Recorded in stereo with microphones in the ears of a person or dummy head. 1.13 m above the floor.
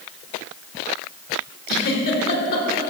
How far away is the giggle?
About 1.6 m.